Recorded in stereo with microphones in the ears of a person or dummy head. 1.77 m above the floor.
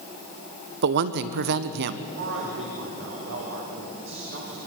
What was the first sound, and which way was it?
A woman speaking, 55° right (ahead or behind).